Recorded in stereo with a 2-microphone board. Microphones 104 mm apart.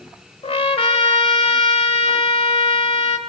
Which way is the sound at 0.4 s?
70° left (ahead or behind).